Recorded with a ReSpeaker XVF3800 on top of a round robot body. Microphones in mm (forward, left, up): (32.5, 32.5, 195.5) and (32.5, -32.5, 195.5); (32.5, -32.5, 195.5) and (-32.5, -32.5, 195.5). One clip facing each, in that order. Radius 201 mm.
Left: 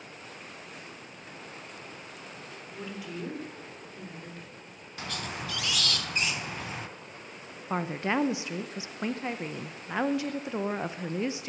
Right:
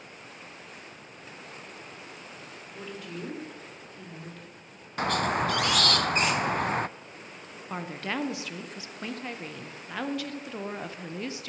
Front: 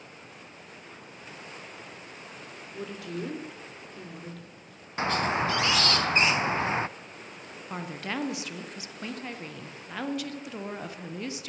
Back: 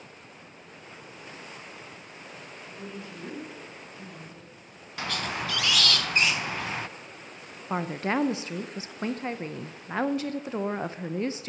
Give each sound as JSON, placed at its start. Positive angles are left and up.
{"t": 2.7, "sound": "a woman speaking", "azimuth_deg": 5, "distance_m": 3.5}
{"t": 5.0, "sound": "a squeak", "azimuth_deg": -60, "distance_m": 0.6}
{"t": 7.7, "sound": "a woman speaking", "azimuth_deg": 145, "distance_m": 1.0}